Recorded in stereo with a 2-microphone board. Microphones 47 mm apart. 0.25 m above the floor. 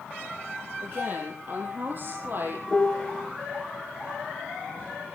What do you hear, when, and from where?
0.8 s a woman speaking: 40° right (ahead or behind), 8 m; by 2.6 s 45° right (ahead or behind), 9 m
2.7 s a piano: 20° left (ahead or behind), 3.5 m